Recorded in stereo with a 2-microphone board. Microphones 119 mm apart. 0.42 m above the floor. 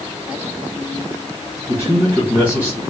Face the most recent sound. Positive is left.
turn(degrees=-30)  # may be behind; listen again after turning